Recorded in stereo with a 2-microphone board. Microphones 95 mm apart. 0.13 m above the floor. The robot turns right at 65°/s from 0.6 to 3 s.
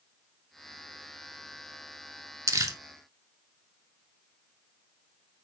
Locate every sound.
2.5 s crumpling: 35° right (ahead or behind), 0.6 m